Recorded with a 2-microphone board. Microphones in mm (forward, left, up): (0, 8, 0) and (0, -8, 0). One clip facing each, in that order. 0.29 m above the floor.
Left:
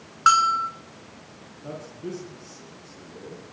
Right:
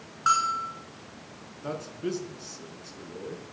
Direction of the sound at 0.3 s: 35° left (ahead or behind).